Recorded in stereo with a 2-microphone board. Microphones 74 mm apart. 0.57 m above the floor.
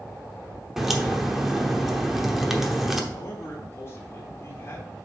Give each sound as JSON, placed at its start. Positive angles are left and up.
{"t": 0.8, "sound": "a crack", "side_deg": -5, "distance_m": 0.9}
{"t": 3.1, "sound": "a man speaking", "side_deg": 40, "distance_m": 1.5}